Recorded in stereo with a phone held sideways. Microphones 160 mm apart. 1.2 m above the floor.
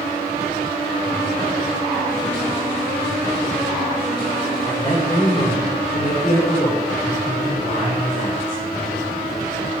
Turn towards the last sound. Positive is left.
turn(degrees=65)  # may be behind; listen again after turning